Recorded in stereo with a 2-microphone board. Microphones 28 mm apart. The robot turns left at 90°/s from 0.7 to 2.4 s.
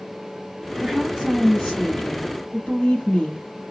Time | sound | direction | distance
0.8 | a woman speaking | 125° right | 2.0 m